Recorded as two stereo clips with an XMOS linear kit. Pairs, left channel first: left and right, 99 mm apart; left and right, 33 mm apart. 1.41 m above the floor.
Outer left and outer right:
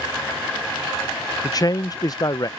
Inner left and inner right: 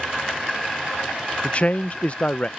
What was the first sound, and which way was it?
A man speaking, 40° left (ahead or behind).